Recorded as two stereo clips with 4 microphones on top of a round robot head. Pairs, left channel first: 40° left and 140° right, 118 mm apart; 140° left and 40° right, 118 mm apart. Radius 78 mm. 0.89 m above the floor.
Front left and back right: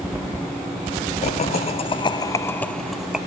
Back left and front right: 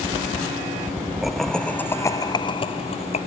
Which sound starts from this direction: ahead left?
Laughter, at 1.2 s.